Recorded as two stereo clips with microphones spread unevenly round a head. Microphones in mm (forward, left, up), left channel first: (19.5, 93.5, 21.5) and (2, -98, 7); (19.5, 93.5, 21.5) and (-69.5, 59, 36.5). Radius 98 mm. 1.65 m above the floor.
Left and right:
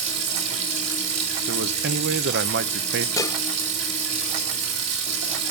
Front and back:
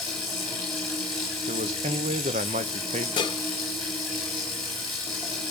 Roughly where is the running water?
Right.